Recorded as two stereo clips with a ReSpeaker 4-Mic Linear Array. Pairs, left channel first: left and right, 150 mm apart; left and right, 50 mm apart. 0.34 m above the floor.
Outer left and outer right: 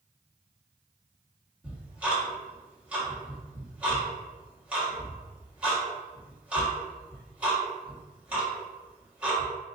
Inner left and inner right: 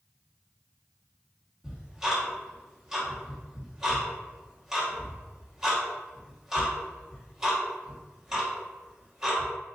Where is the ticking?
10° right (ahead or behind), 1.5 m.